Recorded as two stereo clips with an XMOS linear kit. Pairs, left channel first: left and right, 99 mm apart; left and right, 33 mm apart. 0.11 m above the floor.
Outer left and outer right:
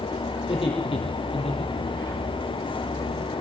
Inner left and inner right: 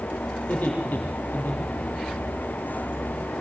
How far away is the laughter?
About 5 m.